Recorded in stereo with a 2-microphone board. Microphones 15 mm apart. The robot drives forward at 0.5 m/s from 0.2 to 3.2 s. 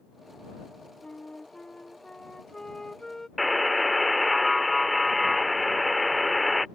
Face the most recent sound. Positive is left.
turn(degrees=0)  # may be behind; listen again after turning